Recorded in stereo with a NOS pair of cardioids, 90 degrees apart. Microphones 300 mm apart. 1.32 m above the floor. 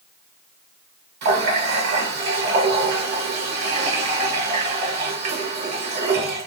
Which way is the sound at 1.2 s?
60° right.